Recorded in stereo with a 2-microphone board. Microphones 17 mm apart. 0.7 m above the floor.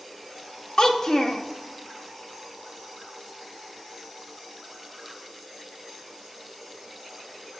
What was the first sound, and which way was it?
A child speaking, 45° left (ahead or behind).